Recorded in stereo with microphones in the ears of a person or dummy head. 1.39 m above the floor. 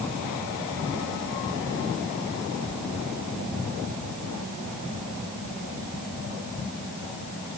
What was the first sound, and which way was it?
Only background noise.